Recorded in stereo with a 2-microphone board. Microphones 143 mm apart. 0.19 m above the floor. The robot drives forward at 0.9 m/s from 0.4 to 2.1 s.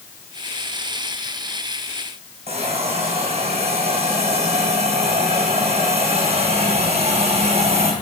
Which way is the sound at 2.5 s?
45° right (ahead or behind).